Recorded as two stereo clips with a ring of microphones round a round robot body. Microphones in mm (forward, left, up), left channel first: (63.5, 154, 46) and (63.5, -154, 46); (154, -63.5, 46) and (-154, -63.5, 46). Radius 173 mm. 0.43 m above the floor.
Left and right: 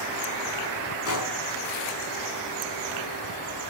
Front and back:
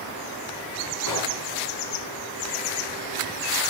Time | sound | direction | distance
1.1 | a gunshot | 45° left | 5.5 m